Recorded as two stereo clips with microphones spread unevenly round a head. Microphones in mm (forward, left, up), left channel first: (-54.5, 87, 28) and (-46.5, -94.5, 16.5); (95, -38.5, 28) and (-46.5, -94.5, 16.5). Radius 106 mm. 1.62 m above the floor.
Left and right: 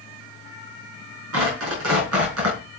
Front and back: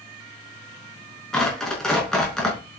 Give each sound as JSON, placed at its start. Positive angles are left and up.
{"t": 1.3, "sound": "tearing paper", "azimuth_deg": -65, "distance_m": 5.5}